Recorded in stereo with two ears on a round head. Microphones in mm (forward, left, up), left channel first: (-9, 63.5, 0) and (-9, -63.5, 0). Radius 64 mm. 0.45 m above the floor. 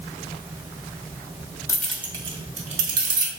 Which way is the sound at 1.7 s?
20° left (ahead or behind).